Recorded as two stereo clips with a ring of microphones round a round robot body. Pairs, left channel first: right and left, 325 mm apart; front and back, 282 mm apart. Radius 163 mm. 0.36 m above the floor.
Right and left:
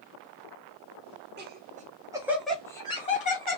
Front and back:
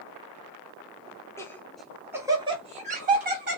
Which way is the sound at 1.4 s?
70° left.